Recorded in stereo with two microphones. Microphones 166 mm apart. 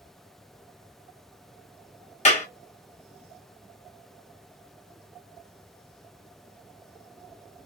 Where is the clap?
45° left (ahead or behind), 1.2 m.